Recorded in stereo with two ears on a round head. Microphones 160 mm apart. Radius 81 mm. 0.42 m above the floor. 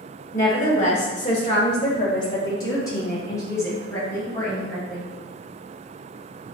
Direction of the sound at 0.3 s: 45° left (ahead or behind).